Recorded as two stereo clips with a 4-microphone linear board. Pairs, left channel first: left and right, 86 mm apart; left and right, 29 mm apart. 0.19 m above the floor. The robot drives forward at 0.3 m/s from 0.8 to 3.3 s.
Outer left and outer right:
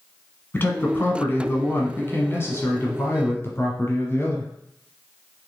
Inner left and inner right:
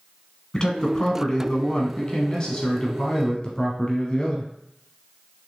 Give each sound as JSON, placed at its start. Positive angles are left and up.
{"t": 0.5, "sound": "a man speaking", "side_deg": 25, "distance_m": 1.3}